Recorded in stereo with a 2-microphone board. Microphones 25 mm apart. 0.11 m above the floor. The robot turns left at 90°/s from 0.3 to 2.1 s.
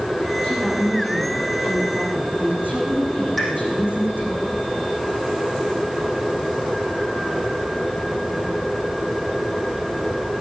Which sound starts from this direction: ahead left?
A woman speaking, at 0.4 s.